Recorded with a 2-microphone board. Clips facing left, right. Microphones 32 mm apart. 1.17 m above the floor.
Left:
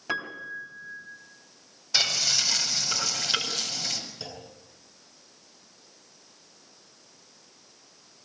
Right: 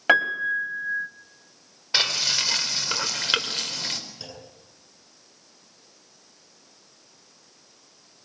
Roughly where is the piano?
Right.